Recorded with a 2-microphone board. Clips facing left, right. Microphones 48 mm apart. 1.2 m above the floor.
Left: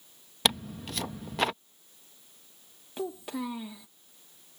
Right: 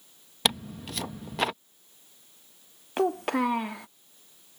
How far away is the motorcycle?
I don't hear a motorcycle.